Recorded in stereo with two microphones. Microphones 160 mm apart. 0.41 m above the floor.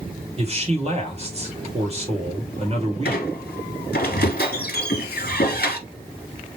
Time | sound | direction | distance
0.4 | a man speaking | 40° right (ahead or behind) | 1.7 m
3.0 | a squeak | 80° left | 1.1 m